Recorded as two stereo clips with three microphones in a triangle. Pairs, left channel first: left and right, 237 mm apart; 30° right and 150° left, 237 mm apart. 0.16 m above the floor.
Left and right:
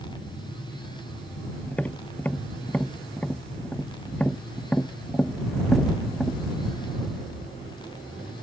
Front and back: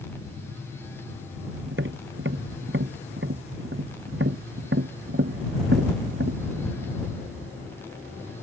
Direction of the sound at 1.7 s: 175° left.